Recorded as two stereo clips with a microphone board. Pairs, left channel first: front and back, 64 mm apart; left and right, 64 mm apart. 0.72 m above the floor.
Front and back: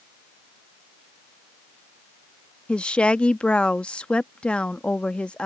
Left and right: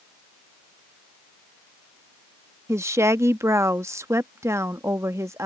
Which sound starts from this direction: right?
A woman speaking, at 2.7 s.